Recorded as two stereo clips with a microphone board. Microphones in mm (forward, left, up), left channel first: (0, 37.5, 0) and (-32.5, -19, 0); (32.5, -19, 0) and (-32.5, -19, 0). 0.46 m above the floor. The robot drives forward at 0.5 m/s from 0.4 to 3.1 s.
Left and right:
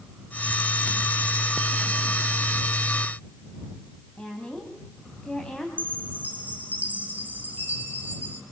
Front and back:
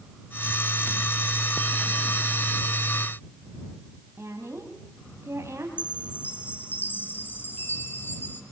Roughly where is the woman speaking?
Behind left.